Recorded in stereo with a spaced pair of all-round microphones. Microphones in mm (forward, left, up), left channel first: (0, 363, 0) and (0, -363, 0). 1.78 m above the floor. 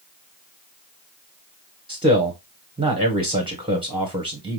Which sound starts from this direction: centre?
A man speaking, at 1.9 s.